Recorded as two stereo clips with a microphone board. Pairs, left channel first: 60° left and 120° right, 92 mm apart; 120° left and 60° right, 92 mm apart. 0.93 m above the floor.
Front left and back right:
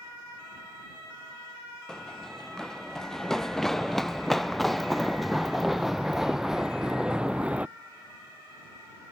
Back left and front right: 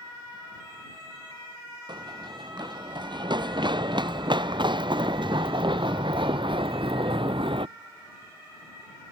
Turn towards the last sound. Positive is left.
turn(degrees=-45)